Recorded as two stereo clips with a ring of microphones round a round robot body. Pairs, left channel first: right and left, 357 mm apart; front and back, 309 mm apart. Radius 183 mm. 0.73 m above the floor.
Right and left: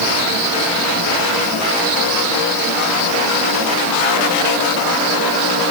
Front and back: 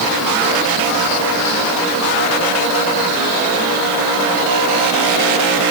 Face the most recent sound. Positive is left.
No sound to turn to.